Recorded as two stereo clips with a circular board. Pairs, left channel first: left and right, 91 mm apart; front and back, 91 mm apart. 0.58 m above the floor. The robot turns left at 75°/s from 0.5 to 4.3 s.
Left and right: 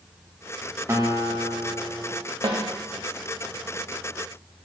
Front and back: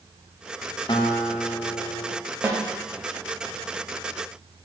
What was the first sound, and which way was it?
A guitar, 30° right.